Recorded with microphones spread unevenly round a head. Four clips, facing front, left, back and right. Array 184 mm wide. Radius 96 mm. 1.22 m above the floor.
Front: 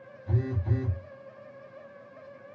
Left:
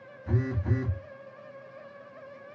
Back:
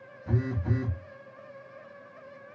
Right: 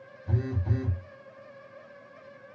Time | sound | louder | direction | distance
0.3 | a phone buzzing | left 2 dB, back 1 dB | 150° left | 0.8 m